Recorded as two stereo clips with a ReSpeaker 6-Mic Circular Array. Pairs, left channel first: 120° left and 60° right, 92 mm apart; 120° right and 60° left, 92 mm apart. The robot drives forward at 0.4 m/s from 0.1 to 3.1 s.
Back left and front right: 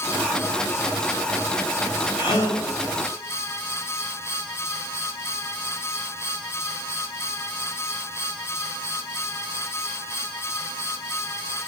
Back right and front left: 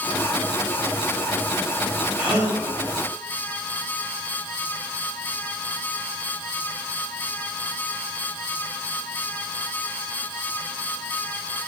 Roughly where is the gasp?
Behind left.